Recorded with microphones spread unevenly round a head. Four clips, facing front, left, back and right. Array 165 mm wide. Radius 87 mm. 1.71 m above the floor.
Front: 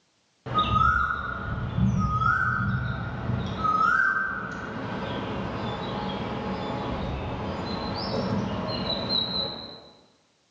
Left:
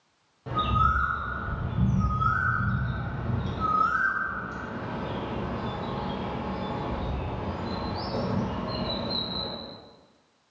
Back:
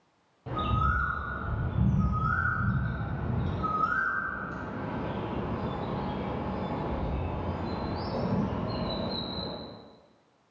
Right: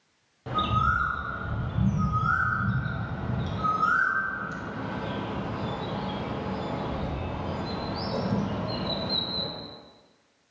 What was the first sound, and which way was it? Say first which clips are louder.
A bird: left 1 dB, front 7 dB; 40° right.